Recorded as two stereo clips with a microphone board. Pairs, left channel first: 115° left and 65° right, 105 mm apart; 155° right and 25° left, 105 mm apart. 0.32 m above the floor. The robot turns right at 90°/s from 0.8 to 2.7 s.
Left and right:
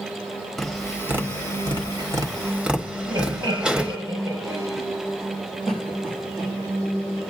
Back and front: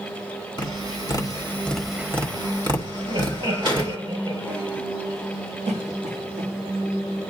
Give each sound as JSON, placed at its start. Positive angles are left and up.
{"t": 0.6, "sound": "tapping", "azimuth_deg": -160, "distance_m": 1.2}
{"t": 3.1, "sound": "laughter", "azimuth_deg": -5, "distance_m": 6.5}
{"t": 5.7, "sound": "a cough", "azimuth_deg": 30, "distance_m": 5.0}